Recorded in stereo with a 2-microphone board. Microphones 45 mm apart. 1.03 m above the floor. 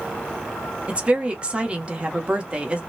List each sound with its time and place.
0.9 s a woman speaking: 25° right (ahead or behind), 0.9 m